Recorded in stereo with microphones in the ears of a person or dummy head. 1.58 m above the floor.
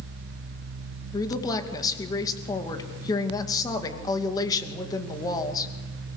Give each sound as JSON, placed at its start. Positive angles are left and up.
{"t": 1.1, "sound": "a woman speaking", "side_deg": 15, "distance_m": 2.5}